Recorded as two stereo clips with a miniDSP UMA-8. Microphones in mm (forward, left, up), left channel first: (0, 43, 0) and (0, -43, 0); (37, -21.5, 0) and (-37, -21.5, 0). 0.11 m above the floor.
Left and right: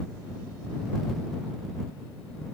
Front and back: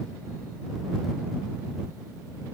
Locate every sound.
Only background noise.